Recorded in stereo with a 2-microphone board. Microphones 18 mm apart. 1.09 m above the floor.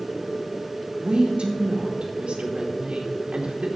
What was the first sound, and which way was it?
A woman speaking, 75° right (ahead or behind).